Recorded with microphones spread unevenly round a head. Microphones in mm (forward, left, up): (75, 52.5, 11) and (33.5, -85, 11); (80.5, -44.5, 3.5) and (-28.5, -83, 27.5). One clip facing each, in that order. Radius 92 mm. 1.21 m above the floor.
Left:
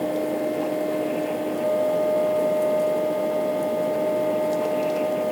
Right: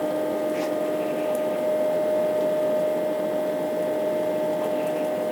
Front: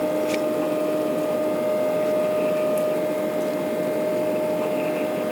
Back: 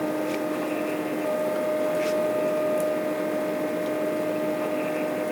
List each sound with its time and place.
Only background noise.